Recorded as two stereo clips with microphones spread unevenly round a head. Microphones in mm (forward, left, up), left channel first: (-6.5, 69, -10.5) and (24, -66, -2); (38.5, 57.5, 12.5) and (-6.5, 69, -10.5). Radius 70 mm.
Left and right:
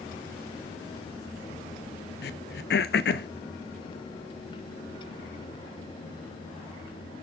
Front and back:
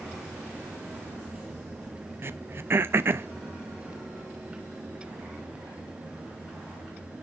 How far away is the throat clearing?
About 0.7 m.